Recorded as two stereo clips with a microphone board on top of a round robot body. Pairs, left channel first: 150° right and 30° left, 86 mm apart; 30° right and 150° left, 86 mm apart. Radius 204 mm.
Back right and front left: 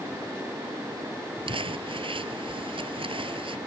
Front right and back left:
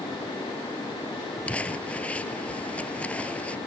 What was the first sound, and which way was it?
Crumpling, 45° left.